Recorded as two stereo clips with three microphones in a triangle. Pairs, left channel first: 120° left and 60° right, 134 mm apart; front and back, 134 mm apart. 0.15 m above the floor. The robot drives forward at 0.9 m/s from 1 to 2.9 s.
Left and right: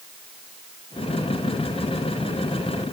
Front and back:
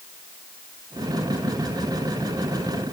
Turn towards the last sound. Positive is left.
No sound to turn to.